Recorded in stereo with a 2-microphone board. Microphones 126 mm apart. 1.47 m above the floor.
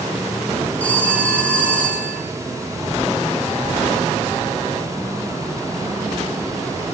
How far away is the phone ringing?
About 9.5 m.